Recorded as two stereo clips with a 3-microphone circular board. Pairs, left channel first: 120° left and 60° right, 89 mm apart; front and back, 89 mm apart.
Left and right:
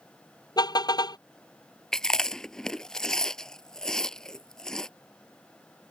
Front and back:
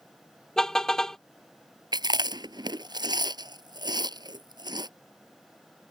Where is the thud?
No thud in this recording.